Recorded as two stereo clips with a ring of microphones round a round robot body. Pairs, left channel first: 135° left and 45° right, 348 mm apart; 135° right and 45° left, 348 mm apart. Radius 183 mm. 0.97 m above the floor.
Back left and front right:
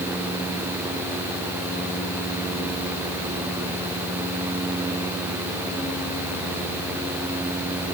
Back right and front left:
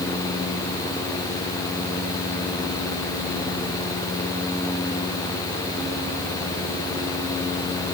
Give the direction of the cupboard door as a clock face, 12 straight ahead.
No cupboard door in this recording.